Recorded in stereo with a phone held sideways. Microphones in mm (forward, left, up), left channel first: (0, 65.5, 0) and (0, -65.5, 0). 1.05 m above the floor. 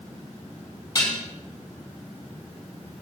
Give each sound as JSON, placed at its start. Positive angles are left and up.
{"t": 0.9, "sound": "dishes clattering", "side_deg": 25, "distance_m": 5.5}